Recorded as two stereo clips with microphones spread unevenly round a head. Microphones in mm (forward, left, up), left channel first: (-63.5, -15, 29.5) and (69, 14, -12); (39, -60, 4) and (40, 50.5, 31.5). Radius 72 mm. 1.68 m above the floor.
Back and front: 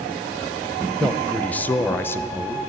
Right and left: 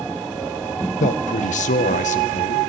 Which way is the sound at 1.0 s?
80° right.